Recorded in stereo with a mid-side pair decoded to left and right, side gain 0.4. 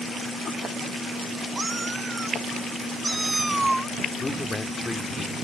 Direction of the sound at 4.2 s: 20° left.